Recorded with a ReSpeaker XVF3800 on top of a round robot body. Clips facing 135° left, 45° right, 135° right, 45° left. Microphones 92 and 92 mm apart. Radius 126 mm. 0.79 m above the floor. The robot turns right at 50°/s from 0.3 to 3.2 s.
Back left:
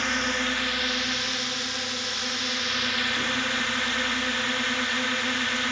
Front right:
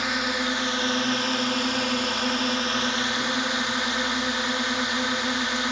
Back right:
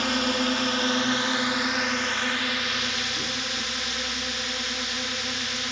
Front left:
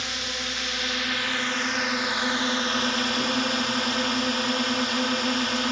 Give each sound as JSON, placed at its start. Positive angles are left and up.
{"t": 0.0, "sound": "a drone", "azimuth_deg": -120}